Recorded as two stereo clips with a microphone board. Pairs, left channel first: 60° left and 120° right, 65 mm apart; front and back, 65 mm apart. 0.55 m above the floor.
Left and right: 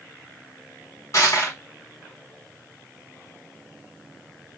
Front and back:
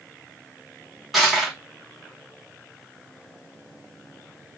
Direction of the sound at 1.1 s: 95° left.